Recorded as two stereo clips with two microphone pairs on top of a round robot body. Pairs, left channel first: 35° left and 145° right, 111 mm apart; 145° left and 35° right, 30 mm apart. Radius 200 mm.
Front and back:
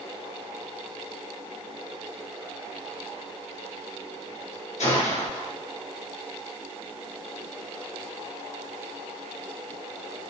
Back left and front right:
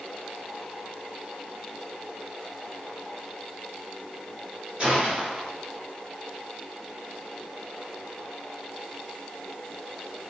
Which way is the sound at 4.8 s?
25° left.